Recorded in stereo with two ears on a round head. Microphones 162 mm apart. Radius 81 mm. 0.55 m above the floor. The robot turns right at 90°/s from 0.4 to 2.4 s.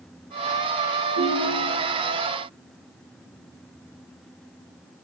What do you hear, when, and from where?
1.2 s a ringtone: 100° right, 1.9 m; by 1.9 s 35° right, 1.9 m